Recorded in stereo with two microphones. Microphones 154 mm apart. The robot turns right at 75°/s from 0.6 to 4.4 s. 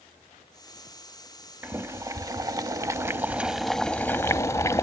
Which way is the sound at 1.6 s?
10° right (ahead or behind).